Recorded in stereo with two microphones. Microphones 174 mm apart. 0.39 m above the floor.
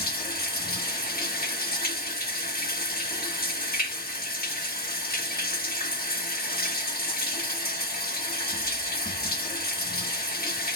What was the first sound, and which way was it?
Running water, 60° left (ahead or behind).